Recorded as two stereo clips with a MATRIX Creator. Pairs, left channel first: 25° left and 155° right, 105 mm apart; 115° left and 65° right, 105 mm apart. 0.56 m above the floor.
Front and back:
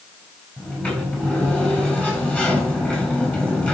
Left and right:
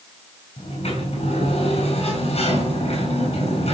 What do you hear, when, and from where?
0.6 s a sliding door: 100° left, 6.5 m